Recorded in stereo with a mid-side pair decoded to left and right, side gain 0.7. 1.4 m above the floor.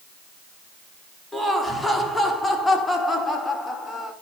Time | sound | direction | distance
1.3 | laughter | straight ahead | 3.5 m